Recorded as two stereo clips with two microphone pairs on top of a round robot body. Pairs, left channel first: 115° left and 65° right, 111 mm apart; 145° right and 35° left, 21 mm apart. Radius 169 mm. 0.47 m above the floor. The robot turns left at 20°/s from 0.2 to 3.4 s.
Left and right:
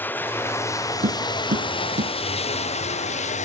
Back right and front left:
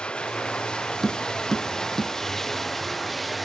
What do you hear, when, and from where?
0.0 s running water: 170° right; by 3.5 s 125° left
1.0 s tapping: 60° right; by 2.1 s 80° right